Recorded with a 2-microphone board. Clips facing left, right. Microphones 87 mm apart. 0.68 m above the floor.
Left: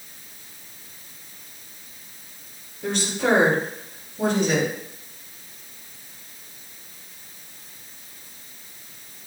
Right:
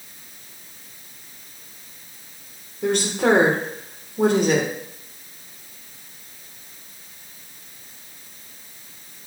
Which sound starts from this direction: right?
A woman speaking, at 2.8 s.